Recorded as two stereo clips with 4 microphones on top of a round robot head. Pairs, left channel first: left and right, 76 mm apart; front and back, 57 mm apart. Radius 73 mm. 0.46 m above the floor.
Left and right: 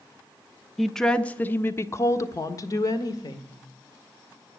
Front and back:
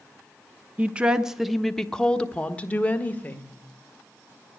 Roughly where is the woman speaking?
Behind.